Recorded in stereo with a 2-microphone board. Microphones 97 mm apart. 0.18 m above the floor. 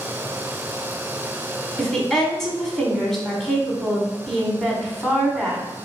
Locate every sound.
1.8 s a woman speaking: 5° left (ahead or behind), 1.2 m